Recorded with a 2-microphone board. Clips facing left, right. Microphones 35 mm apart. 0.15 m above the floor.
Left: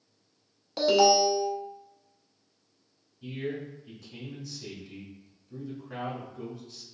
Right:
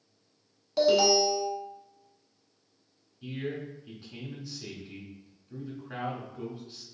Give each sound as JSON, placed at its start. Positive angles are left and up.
{"t": 0.8, "sound": "an alarm", "side_deg": 15, "distance_m": 0.8}
{"t": 3.2, "sound": "a man speaking", "side_deg": -30, "distance_m": 1.3}